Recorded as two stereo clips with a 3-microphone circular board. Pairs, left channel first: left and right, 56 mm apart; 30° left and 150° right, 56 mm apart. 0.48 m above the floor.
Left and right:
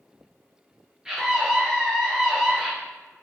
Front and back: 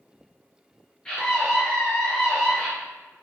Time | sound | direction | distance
1.1 | a scream | 25° right | 1.1 m